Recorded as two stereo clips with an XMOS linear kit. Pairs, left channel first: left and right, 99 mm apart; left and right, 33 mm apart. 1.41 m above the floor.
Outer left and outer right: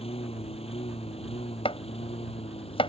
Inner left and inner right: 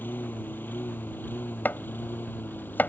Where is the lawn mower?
80° left; by 2.9 s 85° left.